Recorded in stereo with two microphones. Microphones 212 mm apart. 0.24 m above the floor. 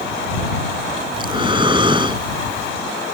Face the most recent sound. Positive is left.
turn(degrees=-25)  # may be behind; listen again after turning